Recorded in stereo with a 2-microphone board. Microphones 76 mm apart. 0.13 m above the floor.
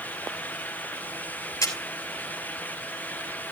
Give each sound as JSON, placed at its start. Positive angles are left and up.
{"t": 1.6, "sound": "a camera shutter", "side_deg": 45, "distance_m": 3.0}